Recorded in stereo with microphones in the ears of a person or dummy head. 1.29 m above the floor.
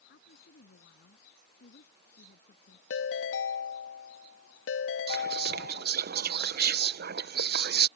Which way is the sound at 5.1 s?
55° right (ahead or behind).